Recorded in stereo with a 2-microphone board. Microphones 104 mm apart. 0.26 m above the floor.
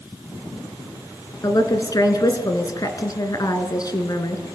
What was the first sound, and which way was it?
A woman speaking, 40° left (ahead or behind).